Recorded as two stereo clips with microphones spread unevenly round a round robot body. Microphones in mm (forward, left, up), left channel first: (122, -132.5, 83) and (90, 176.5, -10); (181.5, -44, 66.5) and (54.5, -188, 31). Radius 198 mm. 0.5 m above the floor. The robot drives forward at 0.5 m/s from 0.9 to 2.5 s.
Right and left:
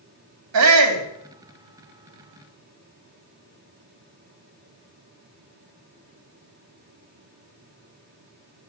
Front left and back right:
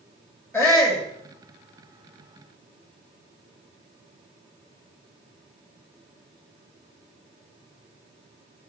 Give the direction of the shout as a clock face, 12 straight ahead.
8 o'clock.